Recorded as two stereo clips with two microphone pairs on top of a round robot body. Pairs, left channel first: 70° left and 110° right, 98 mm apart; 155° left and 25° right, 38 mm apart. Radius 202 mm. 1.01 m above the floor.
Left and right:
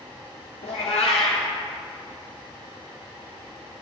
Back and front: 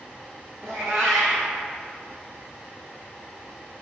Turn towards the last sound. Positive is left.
turn(degrees=80)